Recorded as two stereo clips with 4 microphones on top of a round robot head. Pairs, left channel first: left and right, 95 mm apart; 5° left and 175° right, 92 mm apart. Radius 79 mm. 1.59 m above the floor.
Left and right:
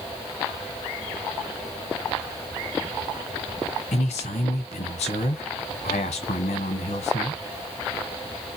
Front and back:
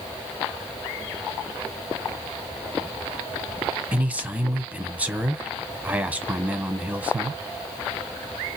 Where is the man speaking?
110° left, 1.0 m.